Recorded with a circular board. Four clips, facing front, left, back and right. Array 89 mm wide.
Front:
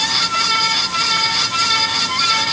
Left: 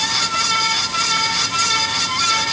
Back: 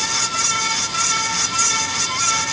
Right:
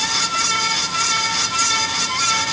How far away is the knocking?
I don't hear knocking.